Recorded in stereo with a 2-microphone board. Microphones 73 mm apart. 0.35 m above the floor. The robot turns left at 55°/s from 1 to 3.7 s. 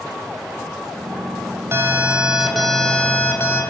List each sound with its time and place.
1.7 s an alarm: 135° right, 3 m; by 3.6 s 120° left, 3 m